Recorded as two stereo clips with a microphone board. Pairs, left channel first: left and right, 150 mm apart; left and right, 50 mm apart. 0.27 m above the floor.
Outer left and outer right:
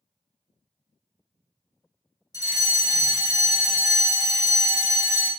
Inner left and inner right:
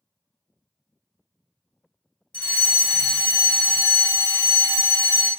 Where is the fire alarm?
25° left (ahead or behind), 2.5 m.